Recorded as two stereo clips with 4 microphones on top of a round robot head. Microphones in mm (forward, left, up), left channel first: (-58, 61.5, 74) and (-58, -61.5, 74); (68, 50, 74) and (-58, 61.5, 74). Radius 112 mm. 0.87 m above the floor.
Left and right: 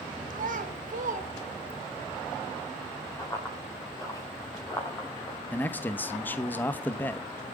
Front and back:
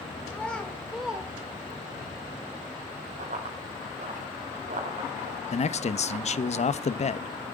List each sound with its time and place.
0.3 s a child speaking: 85° right, 3.5 m; by 2.0 s 120° right, 2.5 m
3.2 s running footsteps: 155° left, 8 m; by 5.4 s 150° left, 5.5 m
5.5 s a man speaking: 15° left, 1.1 m